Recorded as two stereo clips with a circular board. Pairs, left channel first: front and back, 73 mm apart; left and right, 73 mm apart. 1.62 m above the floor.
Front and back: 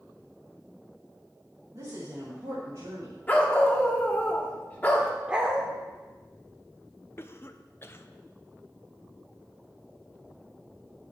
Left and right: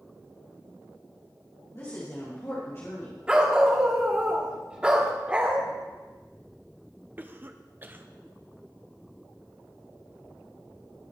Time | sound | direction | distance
1.7 | a woman speaking | 135° left | 2.5 m
3.3 | a dog barking | 30° right | 1.2 m
5.3 | a dog barking | 130° right | 1.3 m
7.2 | a cough | 40° right | 0.5 m